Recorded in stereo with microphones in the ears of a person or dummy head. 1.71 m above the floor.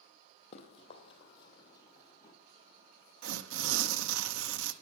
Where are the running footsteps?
30° left (ahead or behind), 3 m; by 2.4 s 20° left (ahead or behind), 3.5 m.